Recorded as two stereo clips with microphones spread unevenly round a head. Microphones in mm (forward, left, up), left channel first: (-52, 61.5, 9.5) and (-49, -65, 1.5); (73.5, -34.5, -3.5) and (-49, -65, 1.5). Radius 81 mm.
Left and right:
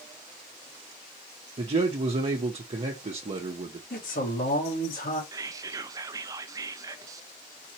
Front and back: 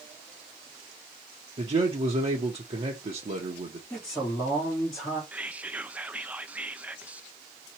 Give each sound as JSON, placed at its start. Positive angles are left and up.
{"t": 1.6, "sound": "a man speaking", "azimuth_deg": -125, "distance_m": 1.0}
{"t": 3.9, "sound": "a man speaking", "azimuth_deg": 100, "distance_m": 2.0}
{"t": 5.3, "sound": "whispering", "azimuth_deg": -95, "distance_m": 0.5}